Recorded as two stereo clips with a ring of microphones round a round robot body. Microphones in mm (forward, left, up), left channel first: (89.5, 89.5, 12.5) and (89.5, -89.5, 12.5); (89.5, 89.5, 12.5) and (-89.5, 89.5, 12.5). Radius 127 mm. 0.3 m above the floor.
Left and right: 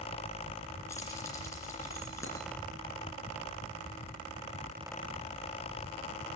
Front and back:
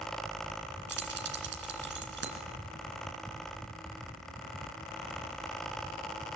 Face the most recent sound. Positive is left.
turn(degrees=170)